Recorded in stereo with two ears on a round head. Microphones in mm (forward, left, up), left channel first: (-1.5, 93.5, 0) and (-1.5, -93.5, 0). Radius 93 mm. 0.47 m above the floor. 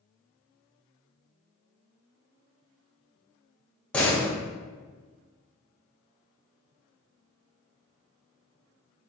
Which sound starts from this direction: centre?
A door slam, at 3.9 s.